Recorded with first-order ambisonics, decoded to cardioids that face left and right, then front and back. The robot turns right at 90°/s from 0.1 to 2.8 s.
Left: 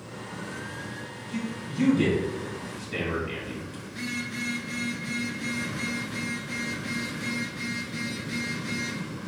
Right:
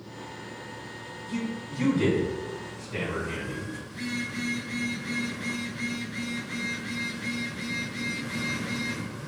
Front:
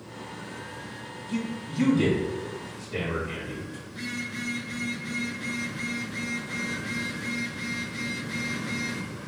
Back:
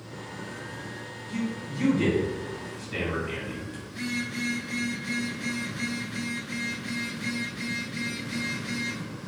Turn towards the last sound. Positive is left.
turn(degrees=115)